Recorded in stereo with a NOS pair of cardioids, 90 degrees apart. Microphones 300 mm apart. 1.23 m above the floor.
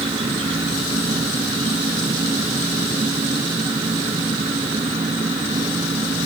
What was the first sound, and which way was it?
An insect, 20° right.